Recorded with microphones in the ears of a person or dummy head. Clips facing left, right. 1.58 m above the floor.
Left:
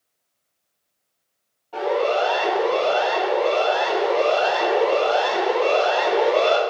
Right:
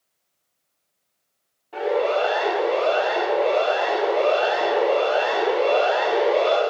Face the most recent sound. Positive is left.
turn(degrees=0)  # may be behind; listen again after turning